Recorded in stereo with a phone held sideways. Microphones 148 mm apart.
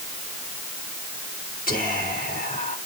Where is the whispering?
80° left, 3.5 m.